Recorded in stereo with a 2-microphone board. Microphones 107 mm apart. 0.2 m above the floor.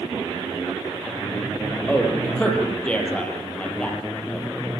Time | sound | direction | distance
1.9 | a man speaking | 10° left (ahead or behind) | 6.5 m